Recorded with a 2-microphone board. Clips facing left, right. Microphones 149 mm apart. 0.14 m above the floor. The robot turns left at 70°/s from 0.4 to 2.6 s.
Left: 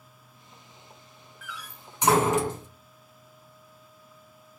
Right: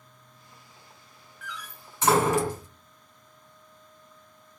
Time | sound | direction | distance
1.4 | a door slam | 5° left (ahead or behind) | 1.0 m